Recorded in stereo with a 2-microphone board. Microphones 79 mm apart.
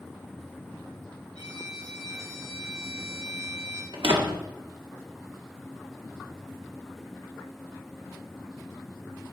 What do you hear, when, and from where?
1.4 s a violin: 80° right, 4 m
3.9 s a door slam: 75° right (ahead or behind), 1.8 m